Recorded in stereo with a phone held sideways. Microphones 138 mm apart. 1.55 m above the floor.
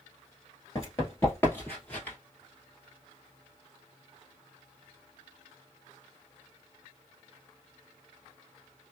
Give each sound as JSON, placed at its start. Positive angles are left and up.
{"t": 0.8, "sound": "running footsteps", "side_deg": 25, "distance_m": 1.7}